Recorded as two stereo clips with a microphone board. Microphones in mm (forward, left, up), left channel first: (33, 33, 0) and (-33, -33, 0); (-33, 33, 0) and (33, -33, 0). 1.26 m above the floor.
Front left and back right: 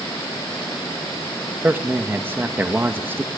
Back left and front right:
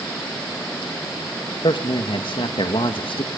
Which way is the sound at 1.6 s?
155° left.